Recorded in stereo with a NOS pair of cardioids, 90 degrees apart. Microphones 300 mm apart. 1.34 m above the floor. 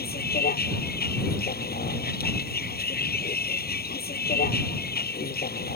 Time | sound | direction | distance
0.0 | a vehicle | 30° left | ?